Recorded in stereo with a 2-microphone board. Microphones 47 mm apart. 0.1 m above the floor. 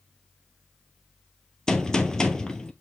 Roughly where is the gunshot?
Centre.